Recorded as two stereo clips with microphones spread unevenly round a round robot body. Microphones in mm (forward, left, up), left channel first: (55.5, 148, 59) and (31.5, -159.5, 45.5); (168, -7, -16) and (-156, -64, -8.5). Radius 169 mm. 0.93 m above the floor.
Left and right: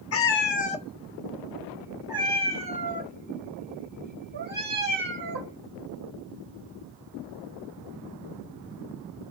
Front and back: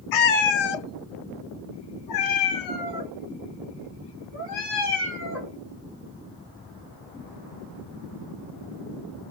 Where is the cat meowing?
40° left, 0.8 m; by 5.6 s 35° right, 3.5 m.